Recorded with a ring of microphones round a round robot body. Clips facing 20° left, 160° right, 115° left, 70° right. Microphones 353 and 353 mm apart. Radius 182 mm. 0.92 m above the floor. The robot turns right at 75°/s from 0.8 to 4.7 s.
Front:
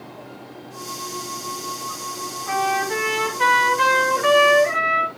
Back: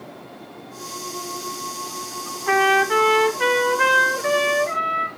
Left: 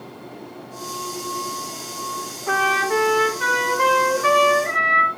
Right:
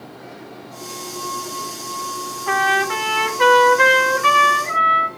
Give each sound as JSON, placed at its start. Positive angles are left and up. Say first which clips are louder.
{"t": 2.5, "sound": "a trumpet", "louder": "back 6 dB, even", "azimuth_deg": -125, "distance_m": 3.0}